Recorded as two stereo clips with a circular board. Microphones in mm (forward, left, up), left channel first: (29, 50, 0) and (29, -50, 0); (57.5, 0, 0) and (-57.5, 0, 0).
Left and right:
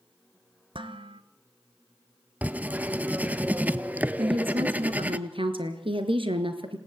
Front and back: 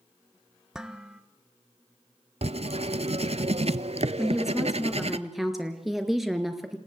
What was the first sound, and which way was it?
Dishes clattering, 95° right.